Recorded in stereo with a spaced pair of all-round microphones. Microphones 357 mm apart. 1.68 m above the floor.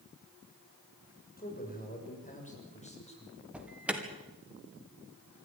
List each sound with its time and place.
1.4 s a man speaking: 25° left (ahead or behind), 6.5 m; by 3.4 s 15° left (ahead or behind), 7 m
3.5 s an alarm: 5° right (ahead or behind), 2.5 m